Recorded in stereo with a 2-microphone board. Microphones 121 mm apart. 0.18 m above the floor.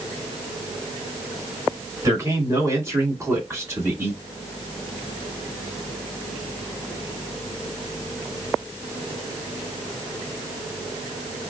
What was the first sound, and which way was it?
A man speaking, 25° right (ahead or behind).